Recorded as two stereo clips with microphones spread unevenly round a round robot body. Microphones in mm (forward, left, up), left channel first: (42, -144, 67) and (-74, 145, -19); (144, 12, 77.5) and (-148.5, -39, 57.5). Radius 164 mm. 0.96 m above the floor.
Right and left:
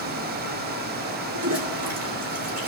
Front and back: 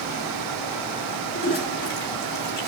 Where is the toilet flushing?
70° left, 3 m.